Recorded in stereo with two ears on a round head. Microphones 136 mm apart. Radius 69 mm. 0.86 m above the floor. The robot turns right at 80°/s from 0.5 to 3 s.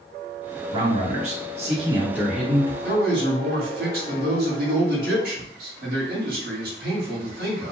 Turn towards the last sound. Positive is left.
turn(degrees=-65)  # may be behind; listen again after turning